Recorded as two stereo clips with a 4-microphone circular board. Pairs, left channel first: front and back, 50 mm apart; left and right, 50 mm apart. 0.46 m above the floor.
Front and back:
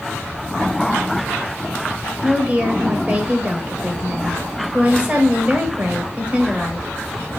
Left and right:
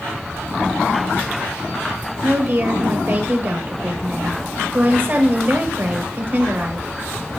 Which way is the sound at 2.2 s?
125° right.